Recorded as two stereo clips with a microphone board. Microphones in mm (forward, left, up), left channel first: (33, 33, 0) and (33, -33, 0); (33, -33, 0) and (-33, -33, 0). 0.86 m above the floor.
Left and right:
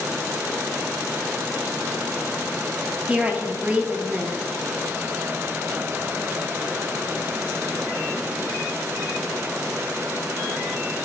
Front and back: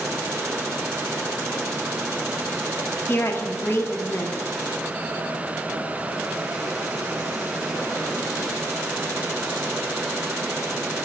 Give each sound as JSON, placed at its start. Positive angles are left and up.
{"t": 3.1, "sound": "a woman speaking", "azimuth_deg": -30, "distance_m": 0.6}